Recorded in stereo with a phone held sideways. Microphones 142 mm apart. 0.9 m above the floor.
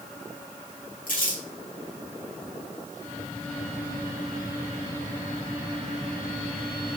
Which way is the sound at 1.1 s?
75° left (ahead or behind).